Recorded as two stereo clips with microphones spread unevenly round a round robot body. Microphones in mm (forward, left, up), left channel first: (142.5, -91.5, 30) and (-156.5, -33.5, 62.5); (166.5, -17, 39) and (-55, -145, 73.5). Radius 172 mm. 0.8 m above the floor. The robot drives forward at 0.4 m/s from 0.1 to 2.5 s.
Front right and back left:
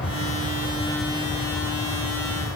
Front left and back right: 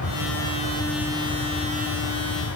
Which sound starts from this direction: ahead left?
An aircraft, at 0.0 s.